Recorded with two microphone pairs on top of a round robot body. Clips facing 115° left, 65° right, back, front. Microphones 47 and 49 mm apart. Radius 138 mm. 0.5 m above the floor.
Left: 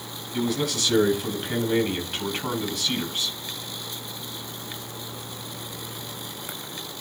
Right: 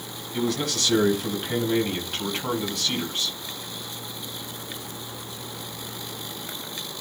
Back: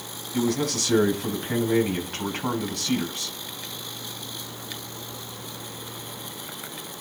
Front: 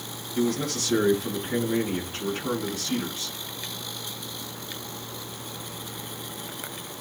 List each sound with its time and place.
0.3 s a man speaking: 160° right, 7 m